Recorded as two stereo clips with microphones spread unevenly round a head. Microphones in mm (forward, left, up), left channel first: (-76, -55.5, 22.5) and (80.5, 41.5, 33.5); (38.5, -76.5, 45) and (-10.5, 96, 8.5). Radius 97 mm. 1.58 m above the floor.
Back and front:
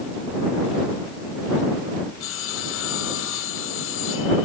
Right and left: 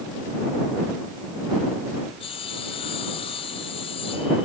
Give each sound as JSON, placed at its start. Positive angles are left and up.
{"t": 2.2, "sound": "sawing", "azimuth_deg": -135}